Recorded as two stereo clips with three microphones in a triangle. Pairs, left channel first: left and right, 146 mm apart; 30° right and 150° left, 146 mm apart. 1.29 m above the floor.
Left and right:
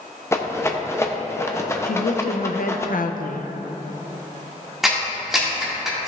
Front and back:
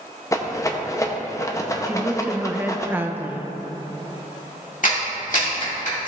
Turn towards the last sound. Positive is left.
turn(degrees=0)